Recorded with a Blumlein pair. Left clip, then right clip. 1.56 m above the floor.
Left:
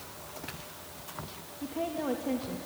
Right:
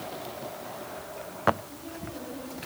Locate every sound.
1.6 s a woman speaking: 45° left, 2.5 m